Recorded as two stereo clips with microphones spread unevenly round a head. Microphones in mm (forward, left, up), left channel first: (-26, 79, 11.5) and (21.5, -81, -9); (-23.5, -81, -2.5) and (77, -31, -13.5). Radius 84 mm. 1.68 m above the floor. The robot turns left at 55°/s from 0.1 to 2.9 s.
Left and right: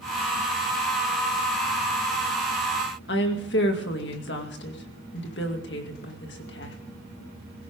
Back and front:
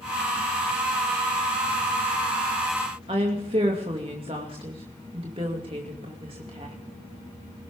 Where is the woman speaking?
85° left, 2.5 m.